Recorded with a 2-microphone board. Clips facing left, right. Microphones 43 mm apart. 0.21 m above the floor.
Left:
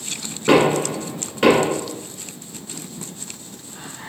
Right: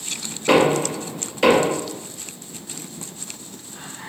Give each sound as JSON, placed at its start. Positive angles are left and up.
{"t": 0.5, "sound": "knocking", "side_deg": 30, "distance_m": 1.8}